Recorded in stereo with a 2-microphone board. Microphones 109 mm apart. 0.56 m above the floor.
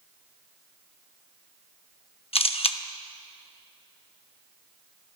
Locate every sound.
2.3 s a camera shutter: 60° left (ahead or behind), 0.6 m